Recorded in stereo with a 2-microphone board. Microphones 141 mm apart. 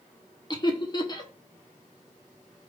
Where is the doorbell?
I don't hear a doorbell.